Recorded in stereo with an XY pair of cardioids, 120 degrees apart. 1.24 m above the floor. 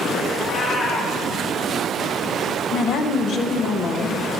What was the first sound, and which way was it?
A cat meowing, 35° left.